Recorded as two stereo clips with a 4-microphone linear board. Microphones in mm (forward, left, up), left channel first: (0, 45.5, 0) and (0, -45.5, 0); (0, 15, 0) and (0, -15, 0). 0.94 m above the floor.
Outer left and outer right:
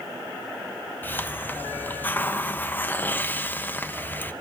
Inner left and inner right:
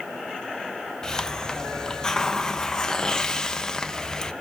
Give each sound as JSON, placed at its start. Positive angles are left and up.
{"t": 1.0, "sound": "a hiss", "side_deg": 20, "distance_m": 1.0}